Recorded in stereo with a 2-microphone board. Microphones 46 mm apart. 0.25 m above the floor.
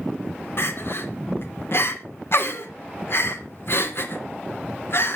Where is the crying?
60° left (ahead or behind), 2.5 m.